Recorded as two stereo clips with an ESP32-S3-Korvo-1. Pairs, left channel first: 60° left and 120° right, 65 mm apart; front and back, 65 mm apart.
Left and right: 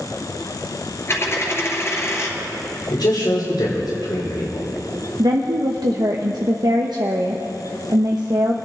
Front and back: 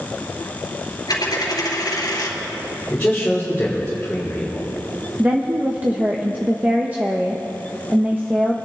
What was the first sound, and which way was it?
A dropped coin, 10° left.